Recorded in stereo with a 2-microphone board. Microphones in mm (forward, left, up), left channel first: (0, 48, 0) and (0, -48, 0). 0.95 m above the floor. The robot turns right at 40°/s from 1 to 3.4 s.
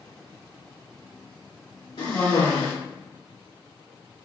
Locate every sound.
2.0 s a cough: 80° left, 1.7 m; by 2.7 s 110° left, 1.7 m